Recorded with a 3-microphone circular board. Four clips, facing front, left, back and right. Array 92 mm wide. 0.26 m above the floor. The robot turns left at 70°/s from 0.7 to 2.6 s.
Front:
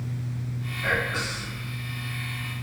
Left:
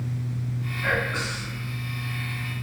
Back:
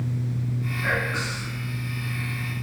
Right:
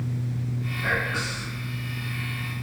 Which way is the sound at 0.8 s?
120° left.